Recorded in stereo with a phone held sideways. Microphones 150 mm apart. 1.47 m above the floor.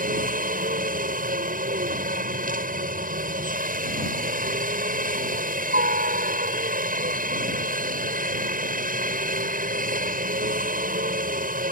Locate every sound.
0.0 s a helicopter: 65° right (ahead or behind)